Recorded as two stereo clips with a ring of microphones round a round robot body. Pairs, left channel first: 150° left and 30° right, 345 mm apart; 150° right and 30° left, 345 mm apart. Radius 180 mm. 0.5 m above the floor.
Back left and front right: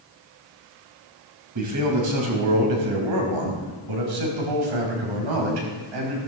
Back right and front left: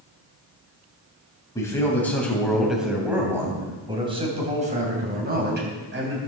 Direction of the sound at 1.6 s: 70° right.